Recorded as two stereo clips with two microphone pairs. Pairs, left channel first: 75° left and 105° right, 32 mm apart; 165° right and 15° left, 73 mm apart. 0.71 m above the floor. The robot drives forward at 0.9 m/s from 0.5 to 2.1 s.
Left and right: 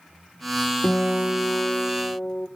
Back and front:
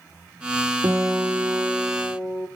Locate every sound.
0.8 s a guitar: 50° left, 1.0 m; by 2.5 s 120° left, 1.0 m